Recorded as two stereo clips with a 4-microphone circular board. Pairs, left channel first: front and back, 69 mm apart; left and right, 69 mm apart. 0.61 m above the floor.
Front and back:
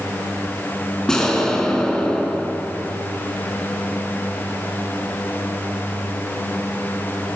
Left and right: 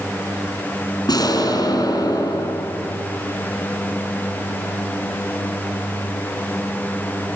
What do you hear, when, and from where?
1.1 s an explosion: 80° left, 5.5 m